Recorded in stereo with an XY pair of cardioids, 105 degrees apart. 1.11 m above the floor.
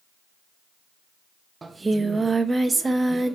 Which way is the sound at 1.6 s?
20° right.